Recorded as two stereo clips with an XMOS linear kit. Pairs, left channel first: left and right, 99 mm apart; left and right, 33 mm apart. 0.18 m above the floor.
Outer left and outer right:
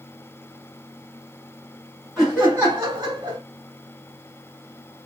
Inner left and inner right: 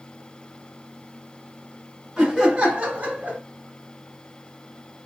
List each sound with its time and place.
2.2 s laughter: centre (ahead or behind), 1.5 m; by 3.4 s 40° right (ahead or behind), 1.6 m